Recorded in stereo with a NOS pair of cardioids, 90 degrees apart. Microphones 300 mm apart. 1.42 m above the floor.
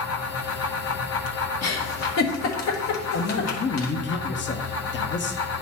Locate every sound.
0.0 s a fan: 55° left, 1.4 m
1.6 s a giggle: 60° left, 1.6 m
3.1 s a man speaking: 40° left, 1.1 m